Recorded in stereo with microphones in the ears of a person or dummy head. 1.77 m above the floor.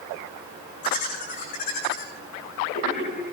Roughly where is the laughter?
Left.